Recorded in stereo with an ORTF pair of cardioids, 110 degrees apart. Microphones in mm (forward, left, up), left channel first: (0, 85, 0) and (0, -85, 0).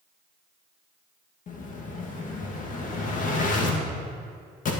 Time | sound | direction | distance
1.5 | an explosion | 50° left | 1.9 m